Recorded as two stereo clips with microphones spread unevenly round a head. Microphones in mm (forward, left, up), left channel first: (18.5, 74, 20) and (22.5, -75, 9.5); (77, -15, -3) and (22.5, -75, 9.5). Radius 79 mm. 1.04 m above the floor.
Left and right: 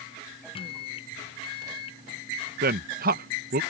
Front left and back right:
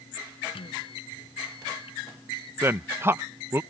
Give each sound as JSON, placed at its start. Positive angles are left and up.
{"t": 0.6, "sound": "a microwave", "azimuth_deg": 35}
{"t": 2.6, "sound": "a man speaking", "azimuth_deg": -65}